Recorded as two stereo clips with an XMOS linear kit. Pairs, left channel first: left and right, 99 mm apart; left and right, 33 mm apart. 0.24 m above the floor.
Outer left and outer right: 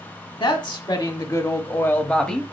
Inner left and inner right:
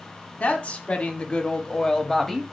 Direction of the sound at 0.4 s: 55° left (ahead or behind).